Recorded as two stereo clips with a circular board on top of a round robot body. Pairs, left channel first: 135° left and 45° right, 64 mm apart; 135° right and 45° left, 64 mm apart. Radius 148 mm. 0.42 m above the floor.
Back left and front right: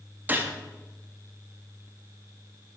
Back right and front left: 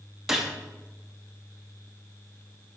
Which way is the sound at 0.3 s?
35° right.